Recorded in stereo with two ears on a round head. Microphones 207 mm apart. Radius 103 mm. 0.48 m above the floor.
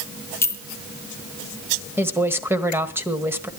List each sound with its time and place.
0.4 s a clink: 10° left (ahead or behind), 1.7 m
2.0 s a woman speaking: 10° right (ahead or behind), 1.8 m